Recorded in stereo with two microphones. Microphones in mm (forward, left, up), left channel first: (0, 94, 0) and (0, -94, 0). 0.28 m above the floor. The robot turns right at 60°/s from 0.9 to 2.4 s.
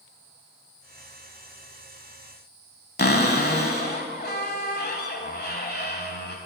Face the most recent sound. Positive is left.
turn(degrees=60)  # may be behind; listen again after turning